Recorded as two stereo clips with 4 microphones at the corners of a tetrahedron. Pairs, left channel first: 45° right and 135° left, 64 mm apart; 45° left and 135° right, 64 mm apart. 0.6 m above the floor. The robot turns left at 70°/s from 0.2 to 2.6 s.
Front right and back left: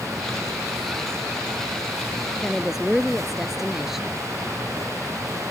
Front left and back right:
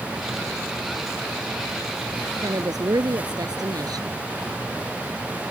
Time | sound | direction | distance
2.4 | a woman speaking | 120° right | ?